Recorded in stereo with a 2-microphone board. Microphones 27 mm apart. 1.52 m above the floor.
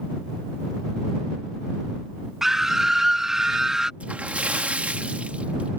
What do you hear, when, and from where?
2.4 s a scream: 20° right (ahead or behind)
4.0 s a splash: 65° right (ahead or behind)